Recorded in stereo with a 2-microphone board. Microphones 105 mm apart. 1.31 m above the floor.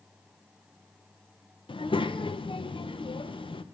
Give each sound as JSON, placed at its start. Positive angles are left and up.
{"t": 1.7, "sound": "a child speaking", "side_deg": 55, "distance_m": 0.6}